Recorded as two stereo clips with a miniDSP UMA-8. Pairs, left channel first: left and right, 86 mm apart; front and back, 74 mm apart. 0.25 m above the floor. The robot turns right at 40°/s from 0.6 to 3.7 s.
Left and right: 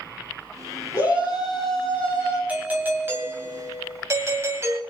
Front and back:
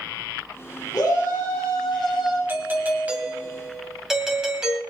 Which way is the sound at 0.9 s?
40° left.